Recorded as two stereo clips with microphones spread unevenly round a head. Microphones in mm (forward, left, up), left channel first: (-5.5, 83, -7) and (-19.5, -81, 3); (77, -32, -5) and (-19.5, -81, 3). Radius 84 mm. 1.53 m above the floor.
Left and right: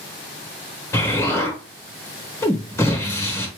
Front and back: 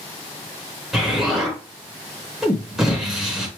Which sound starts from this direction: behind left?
An explosion, at 0.9 s.